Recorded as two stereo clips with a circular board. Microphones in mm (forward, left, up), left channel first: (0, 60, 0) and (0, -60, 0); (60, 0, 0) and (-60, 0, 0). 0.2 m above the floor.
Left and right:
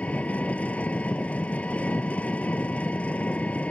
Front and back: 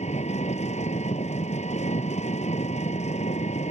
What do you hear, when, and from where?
0.0 s an engine running: 10° left